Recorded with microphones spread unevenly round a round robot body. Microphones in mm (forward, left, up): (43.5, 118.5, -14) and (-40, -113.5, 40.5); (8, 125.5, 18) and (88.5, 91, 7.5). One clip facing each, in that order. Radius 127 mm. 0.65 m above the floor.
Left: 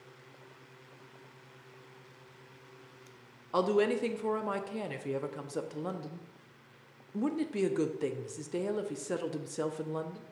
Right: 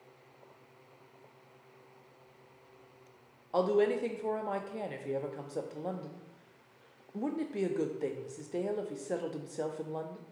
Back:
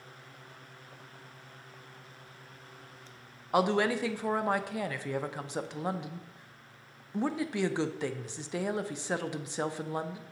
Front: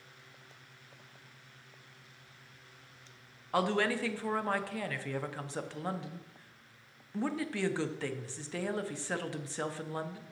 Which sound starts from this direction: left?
A woman speaking, at 3.5 s.